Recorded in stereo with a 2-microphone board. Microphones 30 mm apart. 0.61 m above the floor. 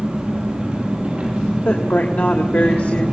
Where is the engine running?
30° right (ahead or behind), 7.5 m.